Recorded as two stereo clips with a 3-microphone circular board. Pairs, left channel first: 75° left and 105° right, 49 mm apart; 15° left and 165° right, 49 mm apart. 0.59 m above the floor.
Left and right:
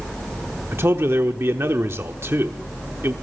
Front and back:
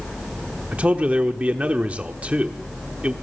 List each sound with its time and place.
0.7 s a man speaking: 110° right, 1.0 m